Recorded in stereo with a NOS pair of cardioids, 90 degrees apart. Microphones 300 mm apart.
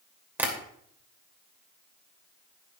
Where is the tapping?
5° right, 2.5 m.